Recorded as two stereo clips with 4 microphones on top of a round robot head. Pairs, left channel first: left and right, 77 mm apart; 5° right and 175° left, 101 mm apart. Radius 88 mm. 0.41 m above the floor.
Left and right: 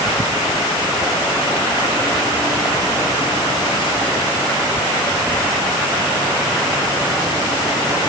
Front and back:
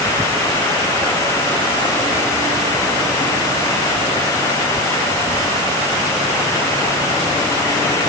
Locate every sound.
Only background noise.